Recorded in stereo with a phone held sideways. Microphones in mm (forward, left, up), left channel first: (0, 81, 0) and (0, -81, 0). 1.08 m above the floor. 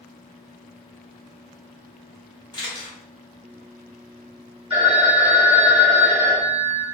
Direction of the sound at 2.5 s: 25° left (ahead or behind).